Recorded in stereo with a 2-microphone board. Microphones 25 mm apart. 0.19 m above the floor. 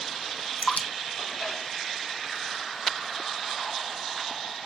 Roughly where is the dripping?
Left.